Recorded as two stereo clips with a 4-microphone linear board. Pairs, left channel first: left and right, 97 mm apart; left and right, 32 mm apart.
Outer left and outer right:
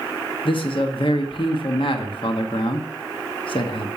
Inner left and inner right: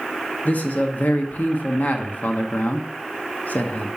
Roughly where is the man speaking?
Left.